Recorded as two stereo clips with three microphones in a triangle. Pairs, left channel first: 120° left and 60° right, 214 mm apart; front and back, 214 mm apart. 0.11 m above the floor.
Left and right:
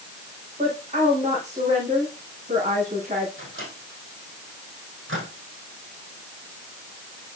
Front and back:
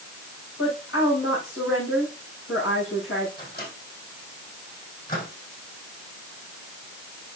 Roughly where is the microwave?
Ahead right.